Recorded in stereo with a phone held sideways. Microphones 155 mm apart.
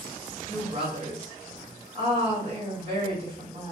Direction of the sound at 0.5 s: 45° right (ahead or behind).